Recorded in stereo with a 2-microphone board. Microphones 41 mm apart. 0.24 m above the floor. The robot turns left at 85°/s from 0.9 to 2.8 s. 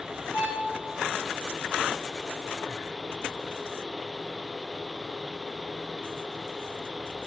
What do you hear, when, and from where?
0.3 s a violin: 60° left (ahead or behind), 5.5 m